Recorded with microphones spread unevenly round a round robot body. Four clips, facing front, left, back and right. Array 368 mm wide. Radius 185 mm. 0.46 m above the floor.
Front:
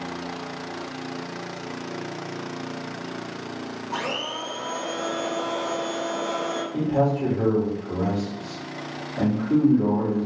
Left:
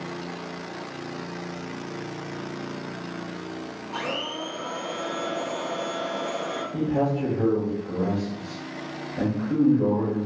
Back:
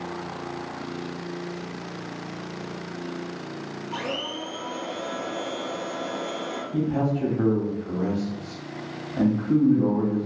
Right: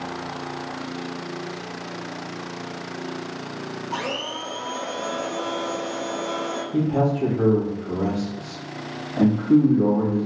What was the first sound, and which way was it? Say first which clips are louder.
A blender: right 1 dB, front 2 dB; 65° right.